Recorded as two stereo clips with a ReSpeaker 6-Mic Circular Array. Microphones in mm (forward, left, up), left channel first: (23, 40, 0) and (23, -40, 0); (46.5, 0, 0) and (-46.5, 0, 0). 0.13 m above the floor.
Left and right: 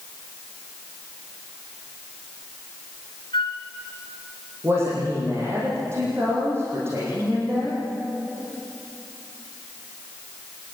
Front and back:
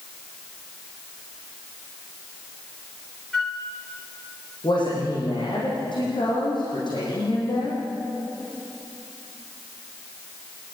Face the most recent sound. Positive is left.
turn(degrees=-35)